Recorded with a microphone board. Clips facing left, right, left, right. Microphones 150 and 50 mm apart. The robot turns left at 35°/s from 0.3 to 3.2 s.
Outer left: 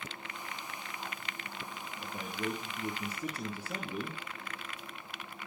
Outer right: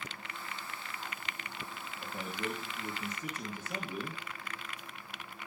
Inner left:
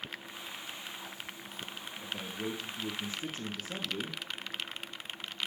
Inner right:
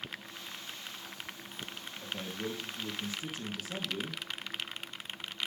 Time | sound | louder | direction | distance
2.0 | a man speaking | outer left 1 dB, even | straight behind | 2.5 m